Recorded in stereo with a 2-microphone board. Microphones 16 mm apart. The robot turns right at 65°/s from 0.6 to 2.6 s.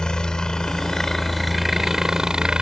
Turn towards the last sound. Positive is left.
turn(degrees=-110)